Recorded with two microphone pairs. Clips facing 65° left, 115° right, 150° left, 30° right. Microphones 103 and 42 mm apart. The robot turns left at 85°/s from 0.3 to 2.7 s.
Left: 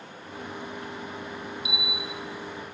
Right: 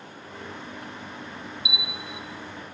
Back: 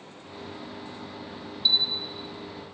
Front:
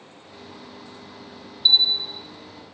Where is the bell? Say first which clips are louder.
Left 2 dB, front 6 dB; 15° left, 0.8 m; by 2.2 s 35° right, 0.8 m.